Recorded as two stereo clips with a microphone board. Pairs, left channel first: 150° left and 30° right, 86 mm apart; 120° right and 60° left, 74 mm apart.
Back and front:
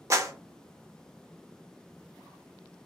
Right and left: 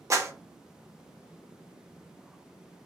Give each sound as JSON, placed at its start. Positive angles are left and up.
{"t": 0.1, "sound": "a clap", "azimuth_deg": 20, "distance_m": 0.6}